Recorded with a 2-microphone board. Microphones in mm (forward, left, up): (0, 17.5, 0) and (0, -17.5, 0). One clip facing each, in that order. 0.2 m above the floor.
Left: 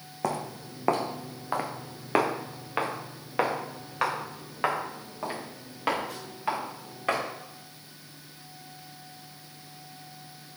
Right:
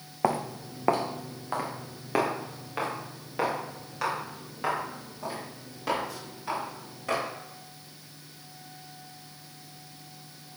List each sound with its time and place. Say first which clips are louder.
0.2 s footsteps: right 4 dB; 25° right (ahead or behind), 0.9 m; by 7.2 s 45° left (ahead or behind), 5 m